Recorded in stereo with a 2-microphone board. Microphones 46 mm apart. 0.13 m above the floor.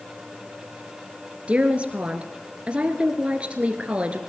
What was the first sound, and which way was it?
A woman speaking, 30° right (ahead or behind).